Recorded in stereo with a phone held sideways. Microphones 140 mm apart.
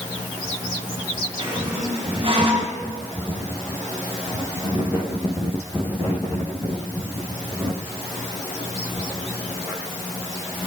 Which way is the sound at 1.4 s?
40° right (ahead or behind).